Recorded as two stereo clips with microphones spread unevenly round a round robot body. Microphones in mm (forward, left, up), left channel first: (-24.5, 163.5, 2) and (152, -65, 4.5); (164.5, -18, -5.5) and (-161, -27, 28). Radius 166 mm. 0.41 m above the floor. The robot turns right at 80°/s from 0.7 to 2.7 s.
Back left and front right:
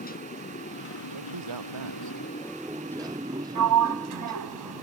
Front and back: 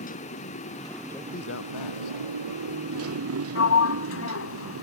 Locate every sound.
0.0 s a motorcycle: 70° left; by 4.8 s 130° right
1.1 s a man speaking: 85° right; by 3.3 s 45° left
3.5 s a sliding door: 45° right